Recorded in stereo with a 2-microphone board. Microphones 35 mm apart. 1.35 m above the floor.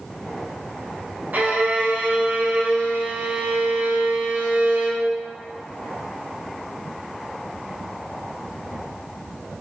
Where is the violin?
55° right (ahead or behind), 0.7 m.